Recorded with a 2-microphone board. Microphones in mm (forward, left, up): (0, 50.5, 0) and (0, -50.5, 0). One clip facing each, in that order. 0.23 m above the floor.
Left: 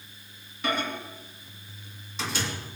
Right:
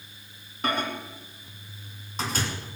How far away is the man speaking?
I don't hear a man speaking.